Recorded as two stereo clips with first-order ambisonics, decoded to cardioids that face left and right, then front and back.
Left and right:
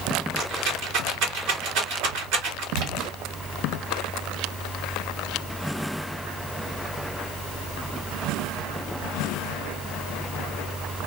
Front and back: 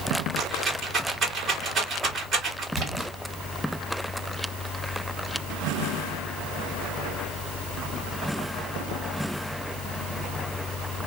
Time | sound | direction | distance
0.4 | a rattle | 110° right | 2.5 m
2.7 | a splash | 110° right | 2.5 m